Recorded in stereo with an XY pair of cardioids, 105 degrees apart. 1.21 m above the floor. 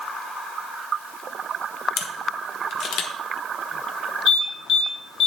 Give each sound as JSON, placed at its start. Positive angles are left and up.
{"t": 2.0, "sound": "a camera shutter", "azimuth_deg": 65, "distance_m": 1.2}
{"t": 4.3, "sound": "an alarm", "azimuth_deg": 70, "distance_m": 2.5}